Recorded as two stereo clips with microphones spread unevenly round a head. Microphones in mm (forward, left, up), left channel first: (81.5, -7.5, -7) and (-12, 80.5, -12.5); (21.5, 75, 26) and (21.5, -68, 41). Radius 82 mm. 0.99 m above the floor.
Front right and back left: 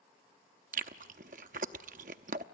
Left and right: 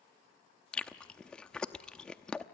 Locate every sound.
0.7 s chewing: 175° left, 0.7 m